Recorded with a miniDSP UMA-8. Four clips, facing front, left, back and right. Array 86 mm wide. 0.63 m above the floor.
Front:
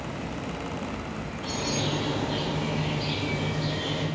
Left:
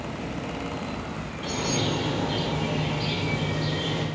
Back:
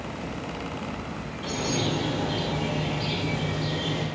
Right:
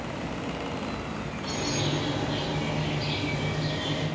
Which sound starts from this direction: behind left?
A bird, at 1.4 s.